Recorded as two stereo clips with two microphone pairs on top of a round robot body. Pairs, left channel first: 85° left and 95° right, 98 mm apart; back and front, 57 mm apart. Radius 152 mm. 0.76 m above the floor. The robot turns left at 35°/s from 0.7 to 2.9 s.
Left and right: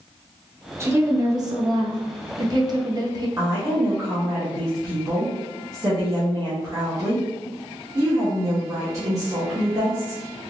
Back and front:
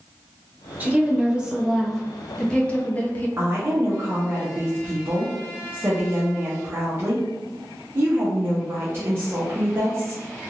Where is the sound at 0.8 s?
45° right, 1.1 m; by 3.3 s 120° right, 1.1 m.